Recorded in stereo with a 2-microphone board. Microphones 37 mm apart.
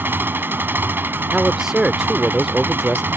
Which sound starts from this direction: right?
An engine running, at 0.0 s.